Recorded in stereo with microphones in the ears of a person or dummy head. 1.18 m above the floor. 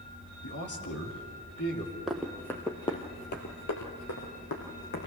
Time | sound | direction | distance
0.4 | a man speaking | 55° left (ahead or behind) | 3 m
2.1 | running footsteps | 5° right (ahead or behind) | 2.5 m